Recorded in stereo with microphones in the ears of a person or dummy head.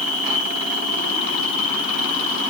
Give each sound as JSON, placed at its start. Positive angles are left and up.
{"t": 0.0, "sound": "an insect", "side_deg": 35, "distance_m": 1.2}